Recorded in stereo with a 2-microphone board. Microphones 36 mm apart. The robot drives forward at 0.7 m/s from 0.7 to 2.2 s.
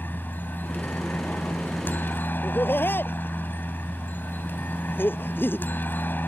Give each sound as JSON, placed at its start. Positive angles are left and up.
{"t": 0.0, "sound": "a helicopter", "side_deg": 60}
{"t": 2.4, "sound": "laughter", "side_deg": 75}